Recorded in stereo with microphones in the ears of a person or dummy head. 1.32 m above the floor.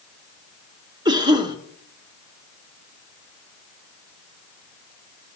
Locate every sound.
1.1 s a cough: 20° right (ahead or behind), 0.9 m